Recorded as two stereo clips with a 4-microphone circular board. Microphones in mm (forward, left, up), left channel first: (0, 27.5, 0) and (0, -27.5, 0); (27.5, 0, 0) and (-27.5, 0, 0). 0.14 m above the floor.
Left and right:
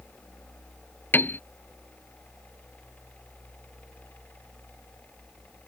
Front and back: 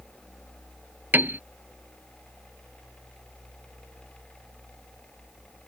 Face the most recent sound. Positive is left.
turn(degrees=130)